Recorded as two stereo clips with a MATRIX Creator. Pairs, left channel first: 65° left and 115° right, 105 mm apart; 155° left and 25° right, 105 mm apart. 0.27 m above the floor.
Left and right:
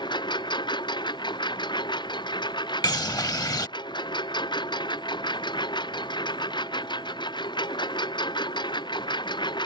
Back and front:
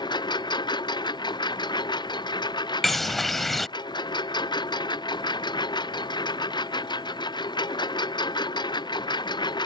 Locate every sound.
0.0 s a lawn mower: 110° left
2.8 s a bird: 70° left